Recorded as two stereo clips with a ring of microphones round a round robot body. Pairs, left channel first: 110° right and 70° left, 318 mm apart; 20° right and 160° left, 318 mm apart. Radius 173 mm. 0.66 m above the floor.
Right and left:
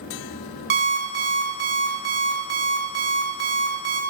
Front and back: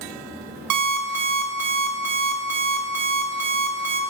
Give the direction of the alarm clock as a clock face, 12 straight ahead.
8 o'clock.